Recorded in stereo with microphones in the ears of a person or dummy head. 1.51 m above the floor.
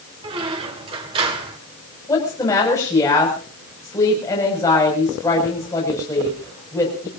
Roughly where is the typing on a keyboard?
No typing on a keyboard in this recording.